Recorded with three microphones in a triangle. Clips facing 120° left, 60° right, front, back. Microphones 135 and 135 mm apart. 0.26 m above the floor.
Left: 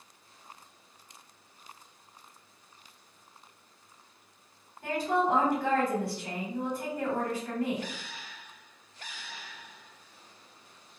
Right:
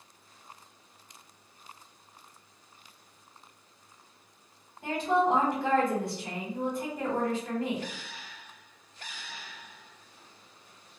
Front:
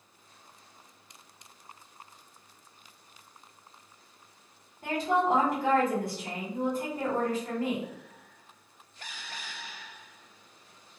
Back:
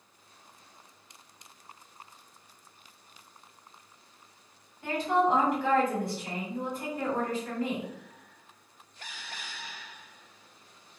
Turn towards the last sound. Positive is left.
turn(degrees=0)